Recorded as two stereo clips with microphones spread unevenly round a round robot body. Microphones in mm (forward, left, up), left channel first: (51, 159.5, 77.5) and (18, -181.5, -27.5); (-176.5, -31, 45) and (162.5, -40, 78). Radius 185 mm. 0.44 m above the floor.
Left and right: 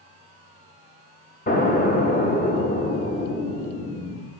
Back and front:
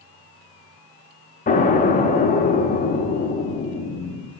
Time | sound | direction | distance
1.5 | an explosion | 165° left | 1.4 m